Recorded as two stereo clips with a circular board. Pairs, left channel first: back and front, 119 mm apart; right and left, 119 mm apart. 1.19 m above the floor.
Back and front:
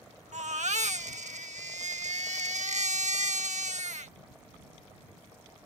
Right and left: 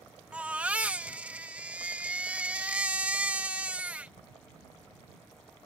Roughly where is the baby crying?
Ahead.